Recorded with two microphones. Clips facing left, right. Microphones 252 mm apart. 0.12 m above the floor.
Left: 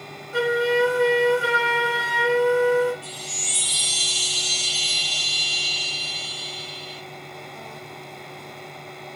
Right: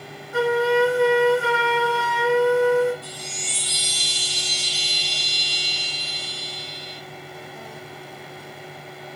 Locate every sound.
0.3 s a flute: 35° left (ahead or behind), 1.8 m
3.0 s a chime: 5° left (ahead or behind), 1.6 m